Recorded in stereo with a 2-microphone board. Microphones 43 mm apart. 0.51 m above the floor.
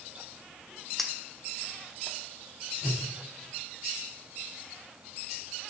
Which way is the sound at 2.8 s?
10° right (ahead or behind).